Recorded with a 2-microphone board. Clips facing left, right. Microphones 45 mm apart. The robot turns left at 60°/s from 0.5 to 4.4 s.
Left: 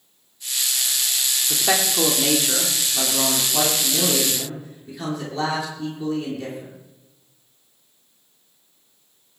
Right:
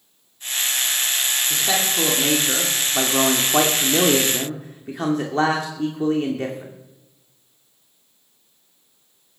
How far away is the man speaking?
About 2 m.